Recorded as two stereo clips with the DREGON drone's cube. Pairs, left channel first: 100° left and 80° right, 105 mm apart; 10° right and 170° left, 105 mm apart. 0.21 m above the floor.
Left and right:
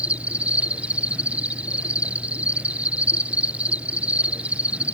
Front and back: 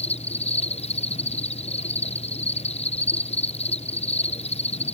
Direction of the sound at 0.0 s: Straight ahead.